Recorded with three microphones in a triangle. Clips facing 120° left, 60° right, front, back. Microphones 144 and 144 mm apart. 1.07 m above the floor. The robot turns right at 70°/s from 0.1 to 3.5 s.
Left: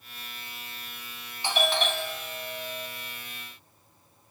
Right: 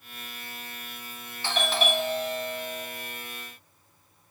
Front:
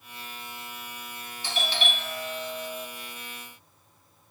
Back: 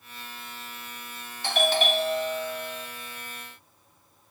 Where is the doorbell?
170° right, 1.2 m; by 2.9 s 70° right, 1.2 m.